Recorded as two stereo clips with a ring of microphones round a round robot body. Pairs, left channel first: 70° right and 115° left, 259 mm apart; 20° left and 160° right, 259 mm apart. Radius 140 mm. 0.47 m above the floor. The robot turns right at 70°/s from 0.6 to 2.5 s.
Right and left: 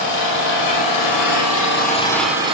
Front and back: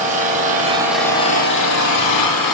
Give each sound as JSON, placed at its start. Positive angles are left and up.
{"t": 0.0, "sound": "an engine running", "azimuth_deg": -95, "distance_m": 5.5}